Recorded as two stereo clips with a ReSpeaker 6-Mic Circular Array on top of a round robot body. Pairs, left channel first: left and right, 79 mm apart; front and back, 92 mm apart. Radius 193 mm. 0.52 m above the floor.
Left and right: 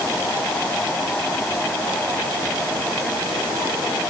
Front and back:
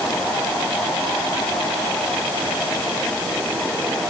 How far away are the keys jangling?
I don't hear keys jangling.